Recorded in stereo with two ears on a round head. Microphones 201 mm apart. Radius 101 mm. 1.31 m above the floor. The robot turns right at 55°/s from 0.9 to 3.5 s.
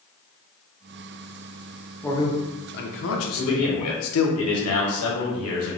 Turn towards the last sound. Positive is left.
turn(degrees=70)  # may be behind; listen again after turning